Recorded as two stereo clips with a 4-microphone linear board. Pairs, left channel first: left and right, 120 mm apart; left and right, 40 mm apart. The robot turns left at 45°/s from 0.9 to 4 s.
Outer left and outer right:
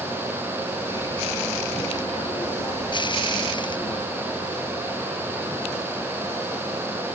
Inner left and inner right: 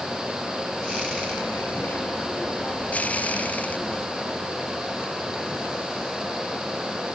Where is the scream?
No scream in this recording.